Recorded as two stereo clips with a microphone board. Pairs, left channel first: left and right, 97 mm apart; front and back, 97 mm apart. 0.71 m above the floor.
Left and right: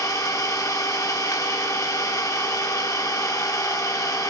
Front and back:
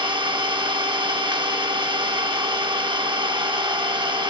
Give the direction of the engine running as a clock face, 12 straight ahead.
7 o'clock.